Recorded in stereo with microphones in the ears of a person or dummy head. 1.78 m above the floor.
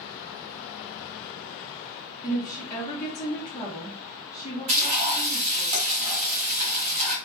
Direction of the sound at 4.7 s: 35° right (ahead or behind).